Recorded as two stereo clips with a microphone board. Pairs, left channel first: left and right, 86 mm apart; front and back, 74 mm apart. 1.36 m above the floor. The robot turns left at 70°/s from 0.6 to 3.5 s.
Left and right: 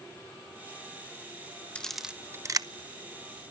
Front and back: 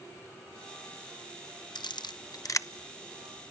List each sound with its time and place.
1.8 s a camera shutter: 15° left, 0.8 m; by 2.7 s 50° right, 0.8 m